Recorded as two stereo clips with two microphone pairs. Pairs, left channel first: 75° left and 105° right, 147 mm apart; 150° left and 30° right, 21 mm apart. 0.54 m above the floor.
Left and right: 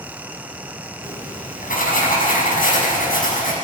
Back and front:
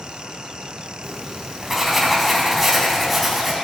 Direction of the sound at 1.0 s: 60° left.